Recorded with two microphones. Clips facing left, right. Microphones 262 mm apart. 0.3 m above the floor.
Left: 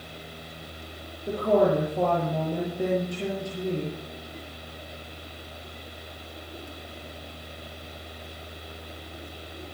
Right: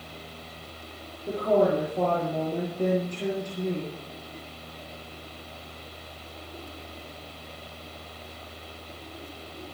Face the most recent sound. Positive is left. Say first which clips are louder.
# left 1 dB
turn(degrees=10)  # may be behind; listen again after turning